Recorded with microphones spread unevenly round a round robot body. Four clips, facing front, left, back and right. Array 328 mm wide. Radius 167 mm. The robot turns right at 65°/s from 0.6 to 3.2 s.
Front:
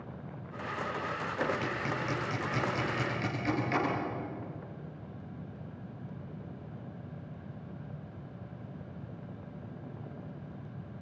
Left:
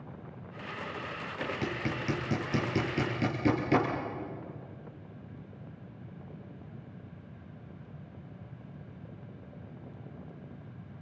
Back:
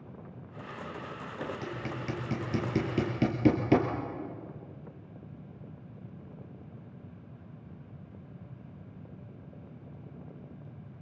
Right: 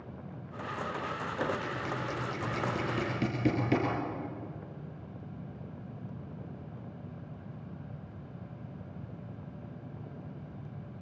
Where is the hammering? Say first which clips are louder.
Left 2 dB, front 3 dB; 80° left, 4.5 m; by 3.9 s 175° right, 4.5 m.